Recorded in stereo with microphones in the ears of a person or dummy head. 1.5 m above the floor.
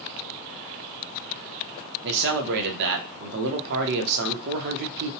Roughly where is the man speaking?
Right.